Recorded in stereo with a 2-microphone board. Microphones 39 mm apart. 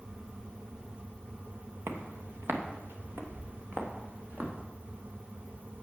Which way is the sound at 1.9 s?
70° right (ahead or behind).